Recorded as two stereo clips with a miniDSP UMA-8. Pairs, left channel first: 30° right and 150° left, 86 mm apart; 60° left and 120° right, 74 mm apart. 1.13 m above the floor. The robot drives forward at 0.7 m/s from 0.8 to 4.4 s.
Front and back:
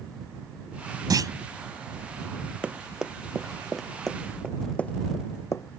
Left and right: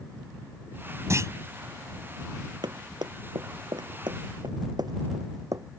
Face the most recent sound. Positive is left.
turn(degrees=-80)